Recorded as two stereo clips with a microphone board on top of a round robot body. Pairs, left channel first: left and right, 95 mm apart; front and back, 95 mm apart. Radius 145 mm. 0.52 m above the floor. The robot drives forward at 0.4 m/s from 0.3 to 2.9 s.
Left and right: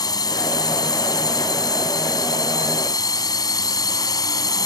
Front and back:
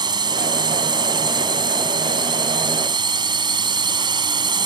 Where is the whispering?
No whispering in this recording.